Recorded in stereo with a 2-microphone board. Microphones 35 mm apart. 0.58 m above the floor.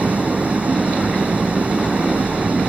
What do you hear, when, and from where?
0.0 s an engine running: 45° right (ahead or behind)